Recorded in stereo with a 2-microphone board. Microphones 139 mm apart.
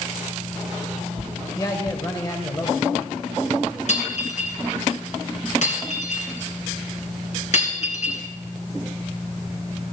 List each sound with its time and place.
1.6 s a man speaking: 25° left (ahead or behind), 0.9 m; by 3.8 s 30° left (ahead or behind), 1.9 m
3.9 s breaking glass: 60° left (ahead or behind), 2.5 m